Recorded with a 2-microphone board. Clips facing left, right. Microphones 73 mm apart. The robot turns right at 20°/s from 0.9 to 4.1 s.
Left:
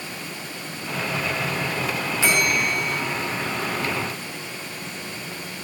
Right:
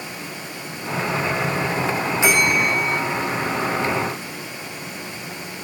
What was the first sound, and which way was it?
A bell, 20° right (ahead or behind).